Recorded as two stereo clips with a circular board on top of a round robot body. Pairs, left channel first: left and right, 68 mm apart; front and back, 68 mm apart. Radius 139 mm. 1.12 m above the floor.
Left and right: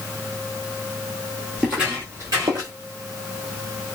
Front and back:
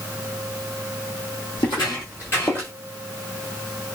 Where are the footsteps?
5° right, 1.4 m; by 2.7 s 70° right, 1.6 m.